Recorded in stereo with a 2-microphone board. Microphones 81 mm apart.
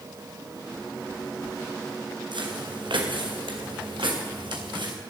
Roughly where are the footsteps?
Right.